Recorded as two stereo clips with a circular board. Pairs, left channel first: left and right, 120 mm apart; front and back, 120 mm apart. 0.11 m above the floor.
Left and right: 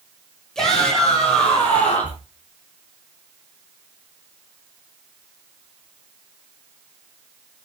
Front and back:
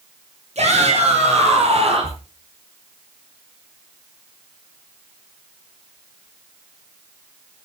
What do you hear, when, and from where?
0.6 s a shout: 175° left, 5.5 m; by 2.2 s 165° left, 4 m